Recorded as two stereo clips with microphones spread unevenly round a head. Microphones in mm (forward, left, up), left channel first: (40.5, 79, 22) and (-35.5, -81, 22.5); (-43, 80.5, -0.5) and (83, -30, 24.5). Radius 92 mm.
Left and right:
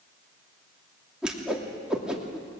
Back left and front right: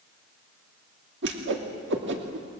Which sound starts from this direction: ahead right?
A whoosh, at 1.2 s.